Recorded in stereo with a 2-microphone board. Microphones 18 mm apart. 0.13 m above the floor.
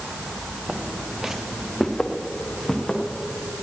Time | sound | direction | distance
0.7 | footsteps | 65° right (ahead or behind) | 1.4 m